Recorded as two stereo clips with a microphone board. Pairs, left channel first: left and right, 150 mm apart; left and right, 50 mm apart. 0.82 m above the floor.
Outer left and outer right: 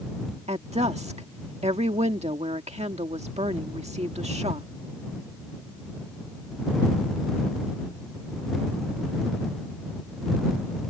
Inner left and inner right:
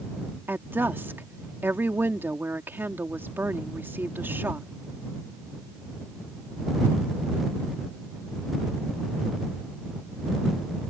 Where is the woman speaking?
45° right (ahead or behind).